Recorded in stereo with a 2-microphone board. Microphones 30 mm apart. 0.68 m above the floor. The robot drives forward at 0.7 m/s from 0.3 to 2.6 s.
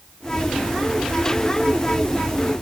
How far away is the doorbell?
I don't hear a doorbell.